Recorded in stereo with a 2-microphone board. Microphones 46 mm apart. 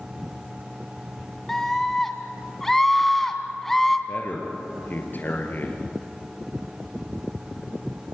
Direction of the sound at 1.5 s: 10° left (ahead or behind).